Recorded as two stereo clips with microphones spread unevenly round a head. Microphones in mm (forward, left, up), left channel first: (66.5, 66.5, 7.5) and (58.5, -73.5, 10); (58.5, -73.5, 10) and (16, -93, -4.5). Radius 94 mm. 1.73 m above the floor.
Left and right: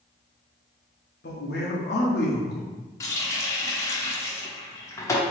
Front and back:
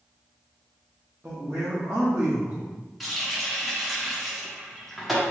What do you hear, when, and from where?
1.2 s a man speaking: 125° left, 1.0 m
3.0 s a running tap: 65° left, 0.7 m